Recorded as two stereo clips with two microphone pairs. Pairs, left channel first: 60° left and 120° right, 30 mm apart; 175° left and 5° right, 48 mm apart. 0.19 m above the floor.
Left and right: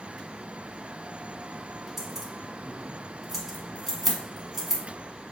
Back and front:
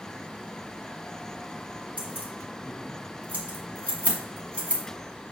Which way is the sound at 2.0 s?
45° right.